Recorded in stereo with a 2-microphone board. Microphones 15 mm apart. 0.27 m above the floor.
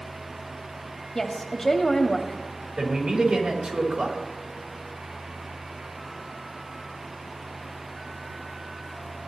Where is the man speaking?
45° right (ahead or behind), 3.5 m.